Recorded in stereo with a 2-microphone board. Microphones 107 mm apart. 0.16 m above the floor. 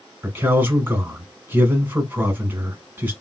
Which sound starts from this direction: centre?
A man speaking, at 0.2 s.